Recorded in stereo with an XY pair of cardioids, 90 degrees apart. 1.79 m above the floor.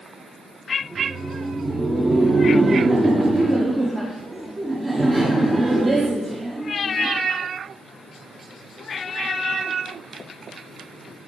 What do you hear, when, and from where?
0.8 s laughter: 20° right, 1.1 m